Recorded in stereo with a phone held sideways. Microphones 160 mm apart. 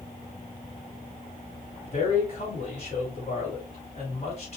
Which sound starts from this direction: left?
A man speaking, at 1.9 s.